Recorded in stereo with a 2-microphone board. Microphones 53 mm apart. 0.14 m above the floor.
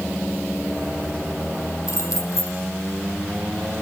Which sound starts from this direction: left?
Keys jangling, at 1.9 s.